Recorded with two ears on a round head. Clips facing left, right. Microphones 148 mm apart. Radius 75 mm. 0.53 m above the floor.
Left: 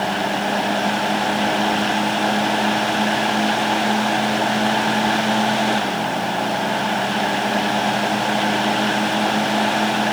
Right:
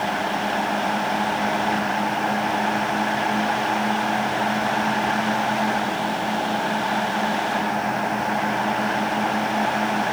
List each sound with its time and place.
Only background noise.